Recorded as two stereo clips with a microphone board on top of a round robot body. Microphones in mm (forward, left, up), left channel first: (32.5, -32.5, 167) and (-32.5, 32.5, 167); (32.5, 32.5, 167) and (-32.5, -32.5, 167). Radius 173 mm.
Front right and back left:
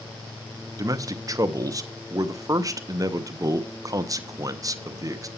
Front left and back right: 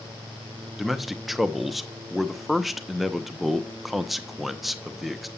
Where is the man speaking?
135° left, 1.0 m.